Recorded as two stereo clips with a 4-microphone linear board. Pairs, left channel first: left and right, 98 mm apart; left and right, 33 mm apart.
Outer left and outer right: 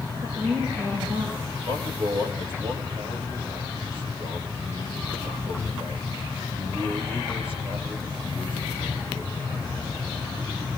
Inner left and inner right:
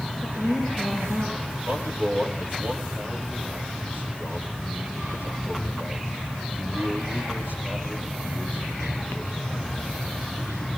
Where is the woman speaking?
45° right (ahead or behind), 9.5 m.